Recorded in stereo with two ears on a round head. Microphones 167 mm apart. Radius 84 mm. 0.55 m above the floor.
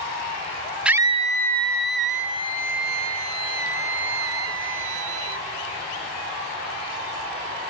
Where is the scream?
5° right (ahead or behind); by 5.5 s 85° right.